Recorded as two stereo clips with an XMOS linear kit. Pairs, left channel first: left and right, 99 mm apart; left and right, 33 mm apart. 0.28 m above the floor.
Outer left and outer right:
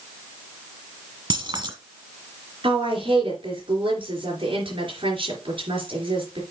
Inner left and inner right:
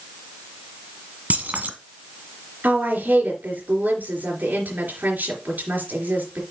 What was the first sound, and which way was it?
Keys jangling, 55° right (ahead or behind).